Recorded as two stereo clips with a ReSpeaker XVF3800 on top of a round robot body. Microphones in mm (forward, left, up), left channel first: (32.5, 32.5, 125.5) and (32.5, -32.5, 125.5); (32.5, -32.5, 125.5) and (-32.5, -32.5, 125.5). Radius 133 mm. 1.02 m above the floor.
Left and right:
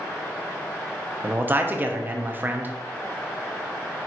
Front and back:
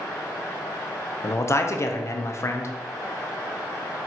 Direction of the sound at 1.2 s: 35° right.